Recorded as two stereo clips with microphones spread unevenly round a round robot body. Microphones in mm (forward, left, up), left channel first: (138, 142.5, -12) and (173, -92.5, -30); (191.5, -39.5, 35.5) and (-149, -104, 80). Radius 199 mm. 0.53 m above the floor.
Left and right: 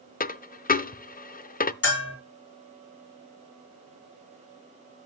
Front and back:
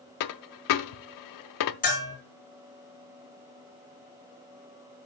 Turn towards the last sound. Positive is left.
turn(degrees=80)